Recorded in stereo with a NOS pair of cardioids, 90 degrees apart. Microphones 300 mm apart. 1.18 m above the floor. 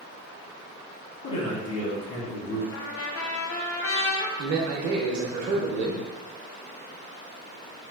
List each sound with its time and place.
1.2 s a man speaking: 70° left, 1.2 m
2.7 s a trumpet: 50° left, 0.7 m
4.4 s a man speaking: 60° right, 0.9 m